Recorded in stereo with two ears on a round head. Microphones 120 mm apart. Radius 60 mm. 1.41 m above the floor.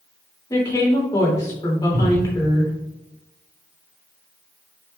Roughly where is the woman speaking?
Left.